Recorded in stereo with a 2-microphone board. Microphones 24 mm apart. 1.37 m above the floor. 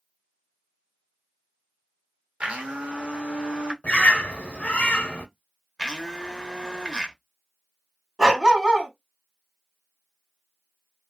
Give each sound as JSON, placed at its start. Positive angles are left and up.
{"t": 2.4, "sound": "a blender", "side_deg": -55, "distance_m": 0.9}
{"t": 3.8, "sound": "a bird", "side_deg": 70, "distance_m": 0.6}
{"t": 5.8, "sound": "a blender", "side_deg": 25, "distance_m": 0.7}
{"t": 8.2, "sound": "a dog barking", "side_deg": -25, "distance_m": 1.2}